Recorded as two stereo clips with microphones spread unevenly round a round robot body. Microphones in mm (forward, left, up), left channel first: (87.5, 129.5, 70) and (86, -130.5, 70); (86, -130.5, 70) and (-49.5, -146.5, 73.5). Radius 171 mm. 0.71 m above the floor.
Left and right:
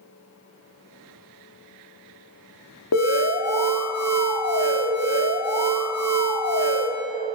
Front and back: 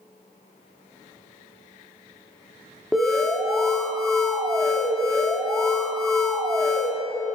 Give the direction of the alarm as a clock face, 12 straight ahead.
9 o'clock.